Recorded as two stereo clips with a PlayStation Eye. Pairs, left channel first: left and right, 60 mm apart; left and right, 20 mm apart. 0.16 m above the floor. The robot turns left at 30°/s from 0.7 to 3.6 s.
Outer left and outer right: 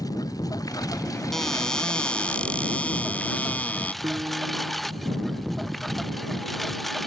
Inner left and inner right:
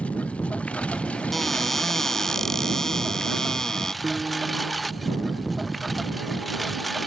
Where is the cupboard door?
5° left (ahead or behind); by 3.9 s 25° left (ahead or behind).